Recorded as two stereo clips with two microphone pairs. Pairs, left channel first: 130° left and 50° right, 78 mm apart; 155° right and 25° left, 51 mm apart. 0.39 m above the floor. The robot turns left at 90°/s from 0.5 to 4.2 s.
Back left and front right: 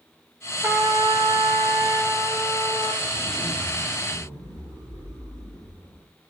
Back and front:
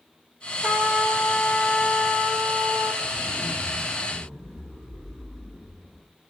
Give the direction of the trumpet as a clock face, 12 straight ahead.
12 o'clock.